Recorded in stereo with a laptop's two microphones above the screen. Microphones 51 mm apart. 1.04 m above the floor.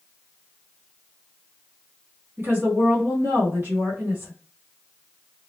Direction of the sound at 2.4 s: 45° right (ahead or behind).